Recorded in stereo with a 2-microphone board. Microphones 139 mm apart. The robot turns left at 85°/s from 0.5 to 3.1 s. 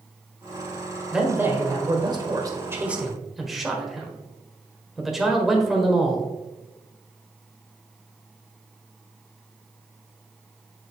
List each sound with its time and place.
1.1 s a man speaking: 5° right (ahead or behind), 1.4 m; by 6.3 s centre (ahead or behind), 1.4 m